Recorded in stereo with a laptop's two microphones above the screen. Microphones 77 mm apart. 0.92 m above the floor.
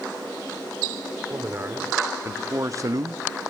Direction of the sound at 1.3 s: 30° right (ahead or behind).